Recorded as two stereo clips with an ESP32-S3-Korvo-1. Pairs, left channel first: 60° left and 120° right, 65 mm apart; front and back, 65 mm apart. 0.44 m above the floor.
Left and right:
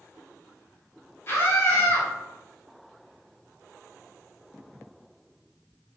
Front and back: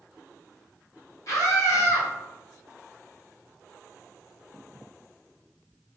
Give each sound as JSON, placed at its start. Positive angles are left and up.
{"t": 1.3, "sound": "a scream", "azimuth_deg": 15, "distance_m": 1.5}